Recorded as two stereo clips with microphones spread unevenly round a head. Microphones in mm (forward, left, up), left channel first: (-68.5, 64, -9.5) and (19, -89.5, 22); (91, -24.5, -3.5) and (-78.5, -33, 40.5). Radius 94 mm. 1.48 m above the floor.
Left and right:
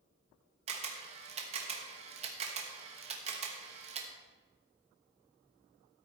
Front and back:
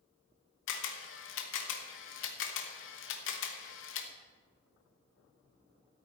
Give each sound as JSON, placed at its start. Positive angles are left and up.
{"t": 0.7, "sound": "a camera shutter", "azimuth_deg": -5, "distance_m": 1.3}